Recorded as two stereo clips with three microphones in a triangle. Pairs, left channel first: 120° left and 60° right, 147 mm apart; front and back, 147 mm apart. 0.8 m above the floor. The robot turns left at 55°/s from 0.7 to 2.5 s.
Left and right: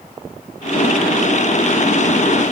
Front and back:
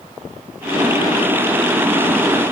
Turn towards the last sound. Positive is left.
No sound to turn to.